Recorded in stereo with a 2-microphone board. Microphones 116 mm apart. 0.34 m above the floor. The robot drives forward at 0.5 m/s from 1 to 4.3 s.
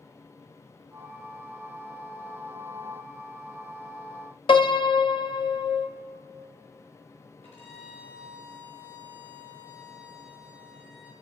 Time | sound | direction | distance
4.5 | a piano | 55° left (ahead or behind) | 0.5 m
7.4 | a violin | 75° left (ahead or behind) | 4.5 m